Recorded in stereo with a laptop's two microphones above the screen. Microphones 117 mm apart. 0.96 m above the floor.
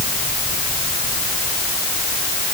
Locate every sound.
Only background noise.